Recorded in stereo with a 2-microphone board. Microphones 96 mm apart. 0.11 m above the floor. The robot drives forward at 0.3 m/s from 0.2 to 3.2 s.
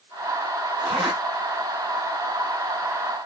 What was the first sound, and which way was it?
A zipper, 65° right (ahead or behind).